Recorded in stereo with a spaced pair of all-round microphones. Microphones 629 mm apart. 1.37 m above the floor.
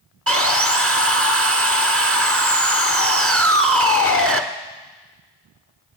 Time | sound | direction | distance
0.3 | sawing | 20° right (ahead or behind) | 1.0 m